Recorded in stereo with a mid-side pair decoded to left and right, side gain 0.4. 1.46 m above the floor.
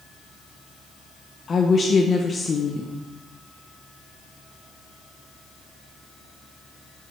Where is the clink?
I don't hear a clink.